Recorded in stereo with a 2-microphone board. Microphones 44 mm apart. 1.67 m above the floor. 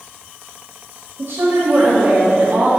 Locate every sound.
1.2 s a woman speaking: 65° right (ahead or behind), 1.3 m; by 2.7 s 50° right (ahead or behind), 3 m